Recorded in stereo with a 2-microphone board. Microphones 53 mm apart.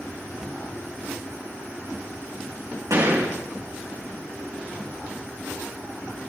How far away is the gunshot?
About 4.5 m.